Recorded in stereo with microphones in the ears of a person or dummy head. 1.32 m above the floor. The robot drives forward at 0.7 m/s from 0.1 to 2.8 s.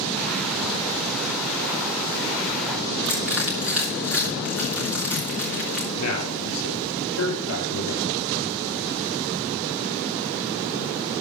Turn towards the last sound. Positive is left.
turn(degrees=90)